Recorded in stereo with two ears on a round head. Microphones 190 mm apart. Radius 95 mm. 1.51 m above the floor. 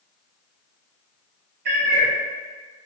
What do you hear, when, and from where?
1.6 s a cat meowing: 50° right (ahead or behind), 1.1 m